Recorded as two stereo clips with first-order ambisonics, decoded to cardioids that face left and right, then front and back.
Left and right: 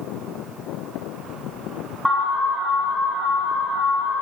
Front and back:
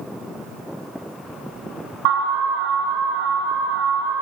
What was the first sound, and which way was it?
An alarm, 175° left.